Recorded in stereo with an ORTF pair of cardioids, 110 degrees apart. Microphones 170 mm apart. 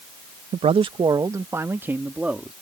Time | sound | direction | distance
0.5 | a man speaking | 45° right | ?